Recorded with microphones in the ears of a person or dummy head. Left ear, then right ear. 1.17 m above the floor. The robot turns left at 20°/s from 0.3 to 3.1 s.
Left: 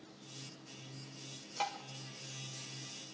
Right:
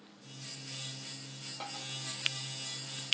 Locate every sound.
1.6 s tapping: 60° left (ahead or behind), 1.3 m; by 1.8 s 65° left (ahead or behind), 1.3 m